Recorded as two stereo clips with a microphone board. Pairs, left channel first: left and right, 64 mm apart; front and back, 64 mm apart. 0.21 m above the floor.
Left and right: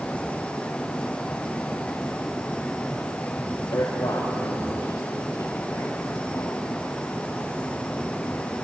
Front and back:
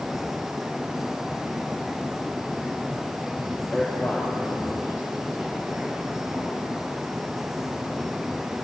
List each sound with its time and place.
3.7 s a man speaking: 85° left, 4 m; by 6.6 s 130° left, 5 m